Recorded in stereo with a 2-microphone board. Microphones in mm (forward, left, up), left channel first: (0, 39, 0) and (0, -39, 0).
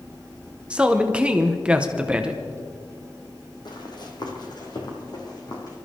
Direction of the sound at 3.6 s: 60° left (ahead or behind).